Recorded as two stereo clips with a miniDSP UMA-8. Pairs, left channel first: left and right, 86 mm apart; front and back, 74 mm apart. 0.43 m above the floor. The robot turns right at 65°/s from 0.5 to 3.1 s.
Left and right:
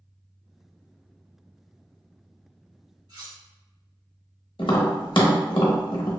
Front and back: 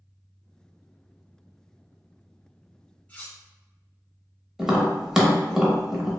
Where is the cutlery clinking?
70° right, 1.4 m.